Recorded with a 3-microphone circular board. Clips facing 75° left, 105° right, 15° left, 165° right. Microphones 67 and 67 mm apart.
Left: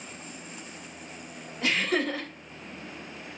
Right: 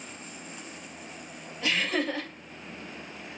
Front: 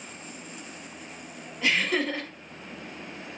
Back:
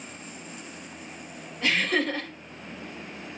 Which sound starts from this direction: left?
Laughter, at 1.6 s.